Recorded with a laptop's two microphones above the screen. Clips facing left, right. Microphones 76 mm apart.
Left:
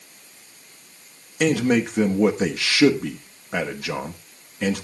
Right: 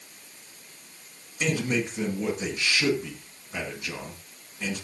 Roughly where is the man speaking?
Left.